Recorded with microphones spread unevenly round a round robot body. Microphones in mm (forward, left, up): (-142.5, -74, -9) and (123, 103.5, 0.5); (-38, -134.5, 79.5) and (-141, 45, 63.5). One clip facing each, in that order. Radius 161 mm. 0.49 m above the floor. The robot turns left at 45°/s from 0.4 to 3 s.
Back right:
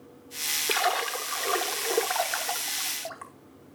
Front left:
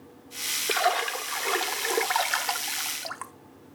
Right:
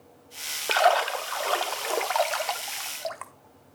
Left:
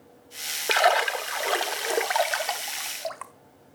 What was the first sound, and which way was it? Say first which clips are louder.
A splash: front left 2 dB, even; 140° left.